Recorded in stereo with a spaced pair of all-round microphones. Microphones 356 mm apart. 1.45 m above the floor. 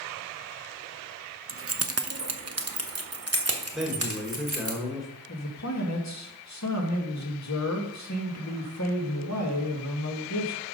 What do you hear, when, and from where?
1.5 s keys jangling: 35° right (ahead or behind), 0.5 m; by 4.7 s 40° right (ahead or behind), 1.9 m
3.7 s a man speaking: centre (ahead or behind), 2.0 m
5.3 s a man speaking: 50° left (ahead or behind), 1.8 m